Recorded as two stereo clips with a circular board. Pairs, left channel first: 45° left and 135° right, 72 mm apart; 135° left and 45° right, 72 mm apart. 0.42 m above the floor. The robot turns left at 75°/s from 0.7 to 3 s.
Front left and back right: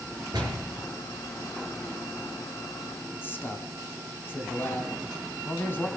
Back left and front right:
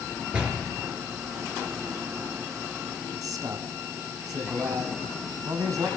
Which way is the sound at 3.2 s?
15° right.